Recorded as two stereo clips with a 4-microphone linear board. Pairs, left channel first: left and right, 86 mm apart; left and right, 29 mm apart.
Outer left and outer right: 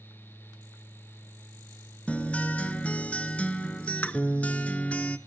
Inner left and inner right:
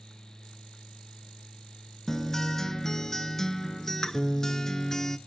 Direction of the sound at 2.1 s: 15° left (ahead or behind).